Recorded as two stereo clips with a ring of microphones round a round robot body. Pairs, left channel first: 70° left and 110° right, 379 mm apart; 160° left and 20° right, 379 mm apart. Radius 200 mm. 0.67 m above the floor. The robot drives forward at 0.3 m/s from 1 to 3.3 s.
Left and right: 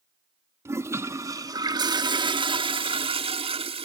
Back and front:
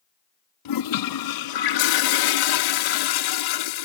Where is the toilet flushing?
165° left; by 3.9 s 170° left.